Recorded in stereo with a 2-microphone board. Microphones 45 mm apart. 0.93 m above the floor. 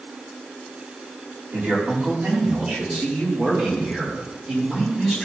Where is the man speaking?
50° right (ahead or behind), 3 m; by 5.3 s 15° right (ahead or behind), 4 m.